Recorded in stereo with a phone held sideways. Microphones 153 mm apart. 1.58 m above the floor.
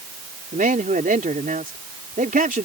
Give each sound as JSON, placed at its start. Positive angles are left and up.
{"t": 0.5, "sound": "a man speaking", "side_deg": -65}